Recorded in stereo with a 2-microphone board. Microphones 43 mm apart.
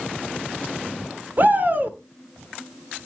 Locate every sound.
1.4 s a shout: 45° right (ahead or behind), 1.7 m